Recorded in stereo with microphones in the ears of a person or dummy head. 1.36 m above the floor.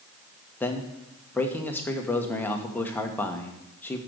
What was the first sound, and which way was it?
A man speaking, 10° left (ahead or behind).